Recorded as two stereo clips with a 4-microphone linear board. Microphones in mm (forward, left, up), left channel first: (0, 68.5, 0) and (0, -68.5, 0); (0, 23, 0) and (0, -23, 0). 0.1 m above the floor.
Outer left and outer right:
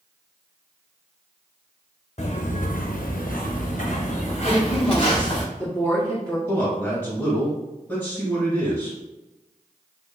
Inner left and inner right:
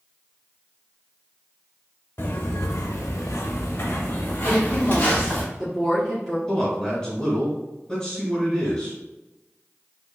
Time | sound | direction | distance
2.2 | footsteps | 50° left (ahead or behind) | 0.8 m
4.4 | a woman speaking | 5° left (ahead or behind) | 1.6 m
6.5 | a man speaking | 15° left (ahead or behind) | 1.7 m